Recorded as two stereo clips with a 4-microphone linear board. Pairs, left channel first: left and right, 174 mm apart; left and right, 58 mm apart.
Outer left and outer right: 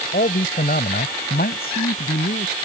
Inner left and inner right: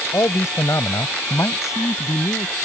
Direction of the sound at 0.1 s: 65° left (ahead or behind).